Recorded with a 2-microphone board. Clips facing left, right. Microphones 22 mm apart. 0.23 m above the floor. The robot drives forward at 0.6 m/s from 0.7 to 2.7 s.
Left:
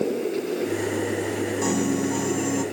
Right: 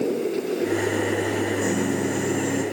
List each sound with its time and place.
1.6 s a piano: 45° left (ahead or behind), 1.7 m; by 2.6 s 40° left (ahead or behind), 1.9 m